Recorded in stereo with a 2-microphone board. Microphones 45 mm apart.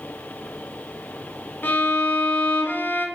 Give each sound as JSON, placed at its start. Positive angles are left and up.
{"t": 1.6, "sound": "a violin", "side_deg": 50, "distance_m": 1.4}